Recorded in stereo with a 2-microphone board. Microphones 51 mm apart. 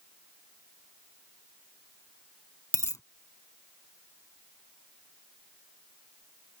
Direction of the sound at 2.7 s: 70° left (ahead or behind).